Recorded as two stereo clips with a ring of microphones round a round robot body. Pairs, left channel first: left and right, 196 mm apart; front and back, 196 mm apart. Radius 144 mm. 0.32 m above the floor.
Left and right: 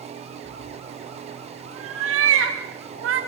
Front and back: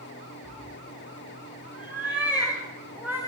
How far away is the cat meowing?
About 5 m.